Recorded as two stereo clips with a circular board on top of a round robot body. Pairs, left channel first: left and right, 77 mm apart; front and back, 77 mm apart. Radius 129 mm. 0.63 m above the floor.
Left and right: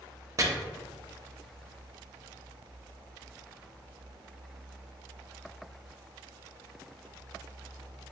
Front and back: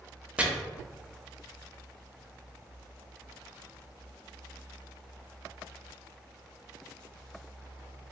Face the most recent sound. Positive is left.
turn(degrees=-110)